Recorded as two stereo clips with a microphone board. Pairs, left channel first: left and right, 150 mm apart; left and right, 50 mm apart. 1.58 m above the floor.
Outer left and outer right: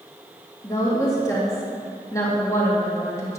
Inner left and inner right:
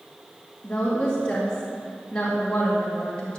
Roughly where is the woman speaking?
Left.